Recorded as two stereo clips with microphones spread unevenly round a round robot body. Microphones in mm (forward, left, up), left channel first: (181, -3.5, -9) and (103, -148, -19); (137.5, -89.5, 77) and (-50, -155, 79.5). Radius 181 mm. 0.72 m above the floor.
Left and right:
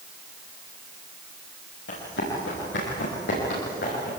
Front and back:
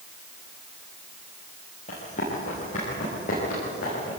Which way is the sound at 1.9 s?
85° left.